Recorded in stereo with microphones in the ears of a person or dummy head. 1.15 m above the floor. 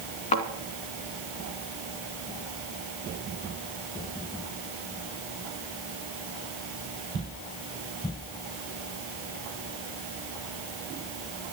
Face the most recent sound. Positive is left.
turn(degrees=35)  # may be behind; listen again after turning